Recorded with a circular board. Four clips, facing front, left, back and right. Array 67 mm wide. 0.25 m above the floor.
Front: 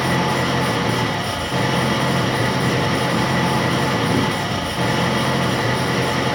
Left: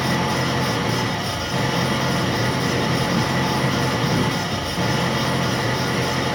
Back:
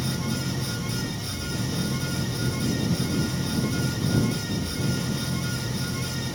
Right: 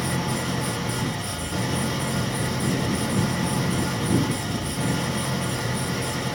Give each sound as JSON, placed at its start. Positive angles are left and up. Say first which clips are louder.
{"t": 0.0, "sound": "an engine running", "louder": "left 5 dB, front 11 dB", "azimuth_deg": 20}